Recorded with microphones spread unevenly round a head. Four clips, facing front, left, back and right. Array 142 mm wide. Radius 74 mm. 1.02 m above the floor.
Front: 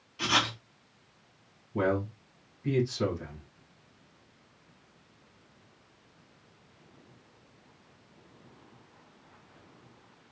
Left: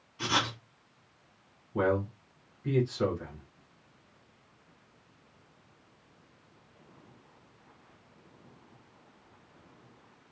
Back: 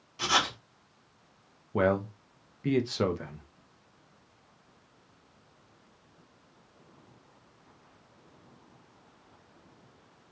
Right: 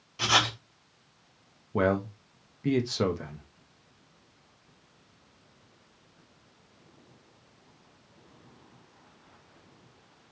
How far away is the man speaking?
About 0.8 m.